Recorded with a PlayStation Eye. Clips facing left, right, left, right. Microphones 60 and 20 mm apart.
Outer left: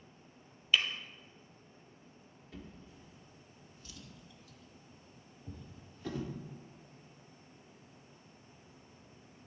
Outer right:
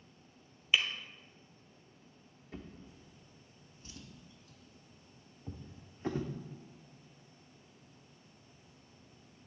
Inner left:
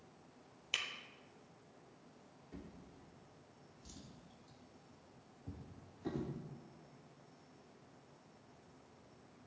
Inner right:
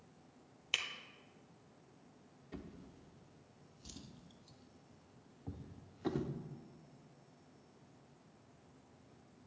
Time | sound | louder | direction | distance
0.7 | breaking glass | even, inner right 2 dB | 15° right (ahead or behind) | 1.2 m
2.5 | a drawer | outer right 2 dB, inner right 3 dB | 35° right (ahead or behind) | 0.9 m